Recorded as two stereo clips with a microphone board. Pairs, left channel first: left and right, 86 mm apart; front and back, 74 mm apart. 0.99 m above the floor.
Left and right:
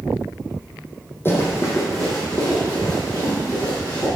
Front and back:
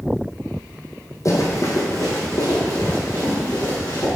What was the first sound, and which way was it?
Running footsteps, 30° left.